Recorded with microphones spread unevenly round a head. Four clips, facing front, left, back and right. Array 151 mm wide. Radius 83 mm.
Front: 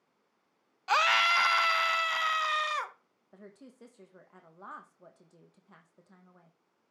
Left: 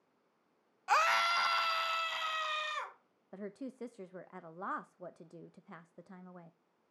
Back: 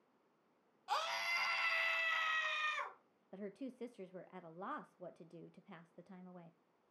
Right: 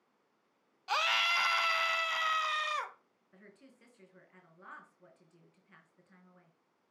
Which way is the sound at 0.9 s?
15° left.